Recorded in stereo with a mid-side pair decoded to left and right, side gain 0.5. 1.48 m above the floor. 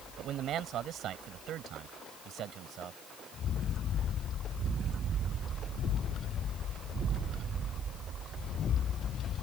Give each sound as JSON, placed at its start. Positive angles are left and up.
{"t": 0.2, "sound": "a man speaking", "azimuth_deg": -65}